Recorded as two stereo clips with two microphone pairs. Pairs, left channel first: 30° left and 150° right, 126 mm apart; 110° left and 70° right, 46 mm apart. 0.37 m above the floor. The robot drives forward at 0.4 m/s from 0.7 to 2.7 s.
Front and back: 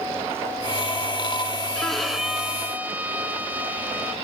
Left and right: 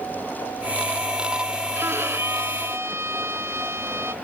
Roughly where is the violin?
Ahead right.